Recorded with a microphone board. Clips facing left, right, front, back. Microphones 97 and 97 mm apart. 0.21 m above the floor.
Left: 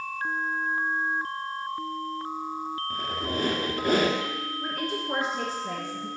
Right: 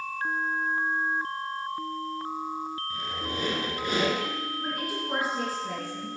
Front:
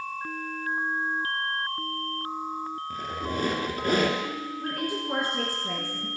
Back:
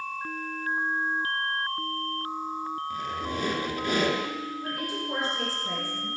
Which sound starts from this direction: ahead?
A woman speaking, at 4.6 s.